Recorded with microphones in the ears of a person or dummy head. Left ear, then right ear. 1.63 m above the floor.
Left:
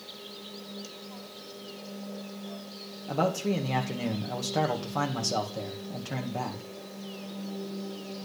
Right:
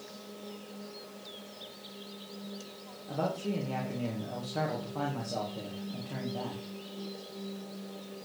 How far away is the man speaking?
About 2.5 m.